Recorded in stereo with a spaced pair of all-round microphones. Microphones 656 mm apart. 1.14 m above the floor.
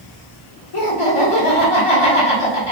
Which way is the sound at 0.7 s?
55° left (ahead or behind).